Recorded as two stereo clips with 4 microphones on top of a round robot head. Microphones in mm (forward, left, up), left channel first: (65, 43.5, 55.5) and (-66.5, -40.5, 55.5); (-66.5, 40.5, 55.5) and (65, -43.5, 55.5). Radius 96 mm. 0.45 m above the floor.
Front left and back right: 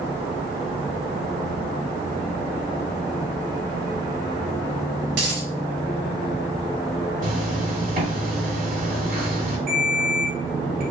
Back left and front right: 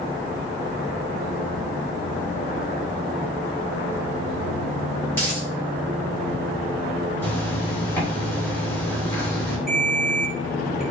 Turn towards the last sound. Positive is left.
turn(degrees=-120)